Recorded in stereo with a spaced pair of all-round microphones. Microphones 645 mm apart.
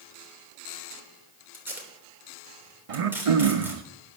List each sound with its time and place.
1.5 s tape being pulled: 5° right (ahead or behind), 3 m
2.9 s throat clearing: 60° right (ahead or behind), 0.7 m